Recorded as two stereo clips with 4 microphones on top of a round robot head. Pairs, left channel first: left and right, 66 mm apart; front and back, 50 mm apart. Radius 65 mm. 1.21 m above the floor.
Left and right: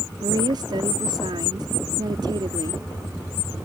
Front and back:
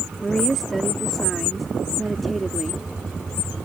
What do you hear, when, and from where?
0.2 s a woman speaking: 85° right